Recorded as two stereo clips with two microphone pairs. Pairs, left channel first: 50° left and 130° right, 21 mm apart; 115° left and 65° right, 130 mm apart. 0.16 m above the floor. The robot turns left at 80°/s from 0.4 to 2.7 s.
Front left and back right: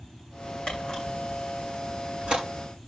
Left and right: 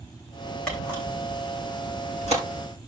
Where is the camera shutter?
30° left, 6.5 m; by 2.4 s 115° right, 6.5 m.